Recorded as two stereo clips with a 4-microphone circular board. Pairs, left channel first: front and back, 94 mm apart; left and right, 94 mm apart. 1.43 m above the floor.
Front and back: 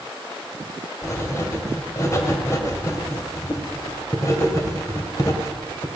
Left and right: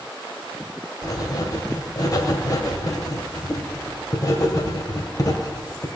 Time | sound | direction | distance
1.0 | writing | 50° left | 1.8 m